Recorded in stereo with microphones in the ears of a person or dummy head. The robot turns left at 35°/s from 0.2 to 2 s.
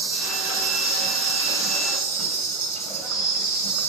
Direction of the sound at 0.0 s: 130° right.